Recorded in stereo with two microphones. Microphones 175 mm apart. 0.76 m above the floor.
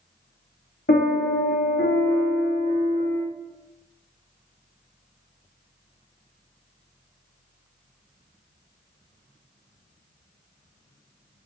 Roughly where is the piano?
Left.